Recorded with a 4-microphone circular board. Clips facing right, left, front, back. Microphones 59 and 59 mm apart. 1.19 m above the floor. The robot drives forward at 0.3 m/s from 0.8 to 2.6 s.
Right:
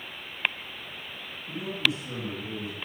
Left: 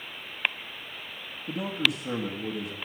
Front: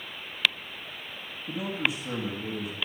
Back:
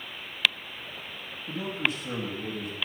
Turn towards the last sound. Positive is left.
turn(degrees=95)